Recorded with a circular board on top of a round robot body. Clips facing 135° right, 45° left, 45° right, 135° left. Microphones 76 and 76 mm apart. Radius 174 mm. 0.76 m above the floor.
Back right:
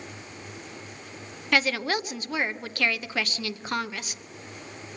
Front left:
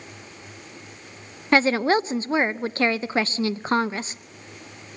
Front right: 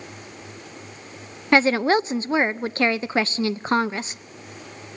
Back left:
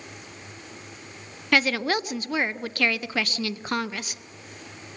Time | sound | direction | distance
1.5 | a woman speaking | straight ahead | 0.6 m